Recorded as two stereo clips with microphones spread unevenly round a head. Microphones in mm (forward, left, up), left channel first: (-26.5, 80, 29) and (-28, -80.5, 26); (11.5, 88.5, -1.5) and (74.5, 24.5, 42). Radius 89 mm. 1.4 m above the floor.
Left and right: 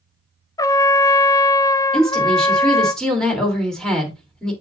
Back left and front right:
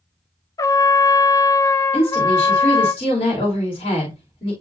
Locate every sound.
0.6 s a trumpet: 160° left, 0.6 m
1.9 s a woman speaking: 175° left, 4 m